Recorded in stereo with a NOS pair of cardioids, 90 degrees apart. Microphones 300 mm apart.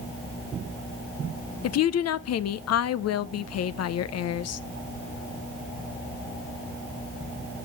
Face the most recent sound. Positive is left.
turn(degrees=60)